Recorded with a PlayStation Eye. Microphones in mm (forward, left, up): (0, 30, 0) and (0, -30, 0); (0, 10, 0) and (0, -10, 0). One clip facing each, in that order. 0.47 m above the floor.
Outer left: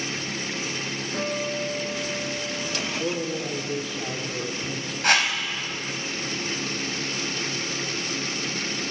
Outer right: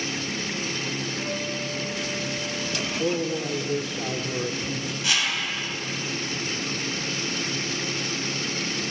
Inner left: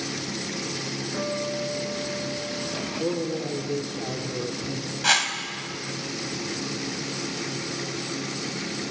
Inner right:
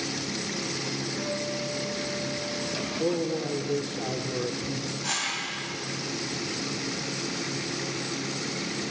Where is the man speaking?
10° right (ahead or behind), 1.4 m.